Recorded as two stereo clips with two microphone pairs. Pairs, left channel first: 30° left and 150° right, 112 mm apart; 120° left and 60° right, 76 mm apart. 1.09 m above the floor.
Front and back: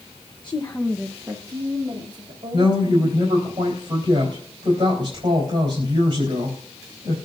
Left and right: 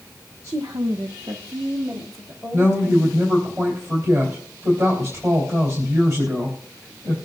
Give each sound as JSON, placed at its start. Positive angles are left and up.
{"t": 0.4, "sound": "a woman speaking", "azimuth_deg": -10, "distance_m": 1.0}
{"t": 2.5, "sound": "a woman speaking", "azimuth_deg": -105, "distance_m": 4.0}